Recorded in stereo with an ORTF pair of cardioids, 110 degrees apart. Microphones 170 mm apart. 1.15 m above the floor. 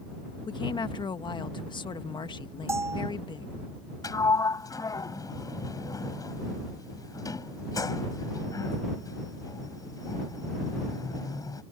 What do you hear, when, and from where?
0.5 s a woman speaking: 30° left
2.7 s a bell: 15° right
4.0 s a sliding door: 20° left